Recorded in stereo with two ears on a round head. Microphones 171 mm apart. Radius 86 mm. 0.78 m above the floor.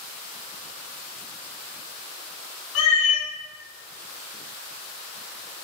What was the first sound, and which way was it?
A cat meowing, 80° left.